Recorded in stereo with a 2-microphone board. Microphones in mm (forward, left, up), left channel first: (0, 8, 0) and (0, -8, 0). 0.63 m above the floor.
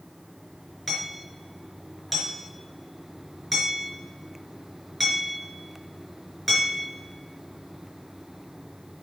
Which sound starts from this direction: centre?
Hammering, at 0.9 s.